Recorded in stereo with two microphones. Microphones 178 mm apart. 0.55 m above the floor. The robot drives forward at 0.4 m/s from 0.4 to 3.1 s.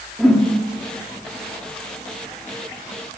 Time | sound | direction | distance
0.2 | a whoosh | 5° left (ahead or behind) | 1.0 m